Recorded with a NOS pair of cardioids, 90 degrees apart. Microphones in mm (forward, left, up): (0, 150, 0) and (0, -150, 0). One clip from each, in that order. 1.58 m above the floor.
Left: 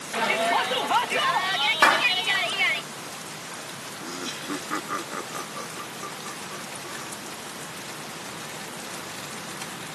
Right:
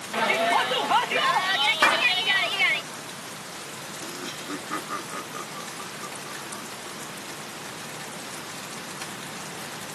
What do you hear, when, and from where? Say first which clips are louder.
0.1 s a shout: right 1 dB; 10° right
1.8 s a clap: left 3 dB; 15° left
4.0 s laughter: left 3 dB; 20° left